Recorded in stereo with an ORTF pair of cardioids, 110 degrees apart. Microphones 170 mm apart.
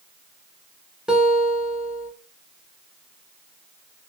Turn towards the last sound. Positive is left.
turn(degrees=-5)